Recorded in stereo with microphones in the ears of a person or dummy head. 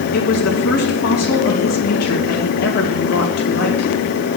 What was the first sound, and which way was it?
A woman speaking, 65° left (ahead or behind).